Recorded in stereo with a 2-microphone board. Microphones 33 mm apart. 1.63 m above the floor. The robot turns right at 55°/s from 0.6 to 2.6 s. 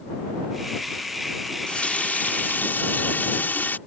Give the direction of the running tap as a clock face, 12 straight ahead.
11 o'clock.